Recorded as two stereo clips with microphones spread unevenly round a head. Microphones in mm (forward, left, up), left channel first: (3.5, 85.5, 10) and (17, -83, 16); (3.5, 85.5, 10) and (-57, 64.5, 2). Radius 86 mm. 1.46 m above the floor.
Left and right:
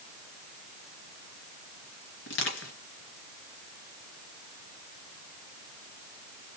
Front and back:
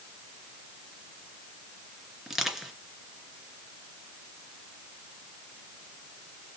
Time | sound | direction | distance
2.3 | crushing | 115° left | 3 m